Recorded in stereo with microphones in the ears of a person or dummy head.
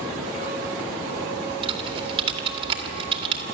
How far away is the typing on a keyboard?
About 2.5 m.